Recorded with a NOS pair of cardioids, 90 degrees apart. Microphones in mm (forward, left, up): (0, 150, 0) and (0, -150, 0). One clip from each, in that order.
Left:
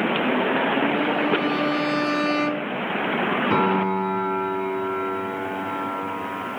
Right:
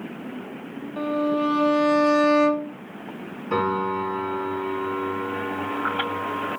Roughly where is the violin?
Ahead.